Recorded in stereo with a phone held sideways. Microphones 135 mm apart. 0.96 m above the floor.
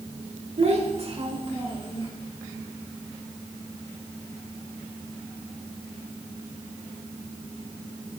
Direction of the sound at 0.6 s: 55° right (ahead or behind).